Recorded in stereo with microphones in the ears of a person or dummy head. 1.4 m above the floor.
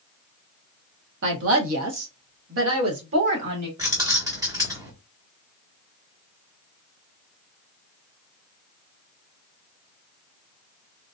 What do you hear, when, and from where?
1.2 s a woman speaking: 70° right (ahead or behind), 1.4 m; by 3.7 s 55° right (ahead or behind), 1.8 m
3.8 s keys jangling: 20° right (ahead or behind), 1.0 m